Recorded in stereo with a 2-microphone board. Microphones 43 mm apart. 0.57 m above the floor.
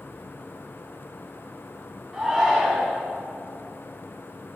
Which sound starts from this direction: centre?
A shout, at 2.1 s.